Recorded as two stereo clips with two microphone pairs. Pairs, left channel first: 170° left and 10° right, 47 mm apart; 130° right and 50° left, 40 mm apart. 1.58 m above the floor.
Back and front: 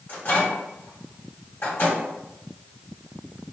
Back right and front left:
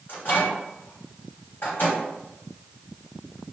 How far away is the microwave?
About 1.7 m.